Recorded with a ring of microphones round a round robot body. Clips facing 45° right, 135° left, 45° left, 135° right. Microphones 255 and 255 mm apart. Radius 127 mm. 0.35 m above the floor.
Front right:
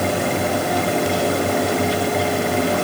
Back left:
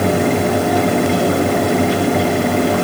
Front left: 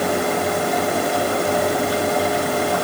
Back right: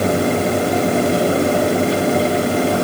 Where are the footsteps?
I don't hear footsteps.